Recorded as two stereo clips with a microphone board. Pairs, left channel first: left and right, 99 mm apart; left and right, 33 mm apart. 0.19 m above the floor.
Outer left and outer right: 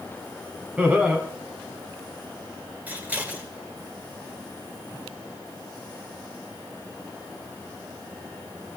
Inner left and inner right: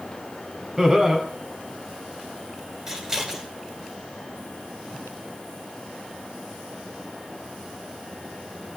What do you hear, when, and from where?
0.8 s laughter: 15° right (ahead or behind), 1.4 m
2.9 s scissors: 20° right (ahead or behind), 2 m